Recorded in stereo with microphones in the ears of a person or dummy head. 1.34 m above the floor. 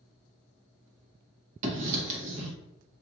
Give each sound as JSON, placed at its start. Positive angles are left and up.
{"t": 1.6, "sound": "writing", "side_deg": -40, "distance_m": 0.9}